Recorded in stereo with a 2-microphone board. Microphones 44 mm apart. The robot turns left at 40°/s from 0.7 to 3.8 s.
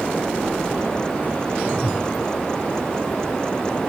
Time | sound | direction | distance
1.7 | a whoosh | 5° left (ahead or behind) | 0.9 m